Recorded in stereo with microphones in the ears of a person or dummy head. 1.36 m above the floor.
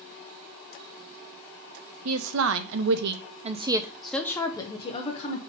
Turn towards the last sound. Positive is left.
turn(degrees=45)  # may be behind; listen again after turning